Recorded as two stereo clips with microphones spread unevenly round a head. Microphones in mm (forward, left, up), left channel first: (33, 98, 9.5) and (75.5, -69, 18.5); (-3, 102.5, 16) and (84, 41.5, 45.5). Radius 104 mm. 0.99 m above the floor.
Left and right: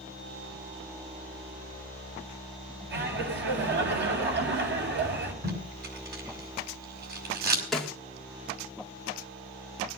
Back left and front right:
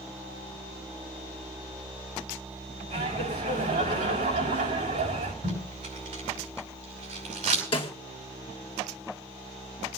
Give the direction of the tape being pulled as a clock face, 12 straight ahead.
2 o'clock.